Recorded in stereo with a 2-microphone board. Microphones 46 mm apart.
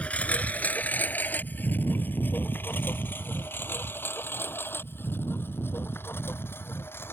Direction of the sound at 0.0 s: 30° left (ahead or behind).